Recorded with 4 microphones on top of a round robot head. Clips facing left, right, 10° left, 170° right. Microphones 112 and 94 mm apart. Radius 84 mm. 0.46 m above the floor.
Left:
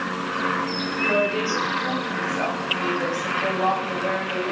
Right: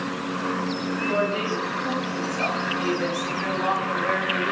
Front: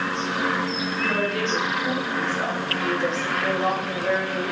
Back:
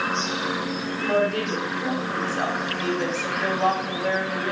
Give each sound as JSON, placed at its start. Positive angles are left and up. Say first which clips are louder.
{"t": 1.0, "sound": "a woman speaking", "louder": "left 3 dB, back 4 dB", "azimuth_deg": 145, "distance_m": 3.5}